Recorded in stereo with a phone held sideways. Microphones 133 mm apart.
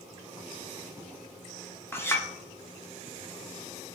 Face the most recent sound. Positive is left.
turn(degrees=15)  # may be behind; listen again after turning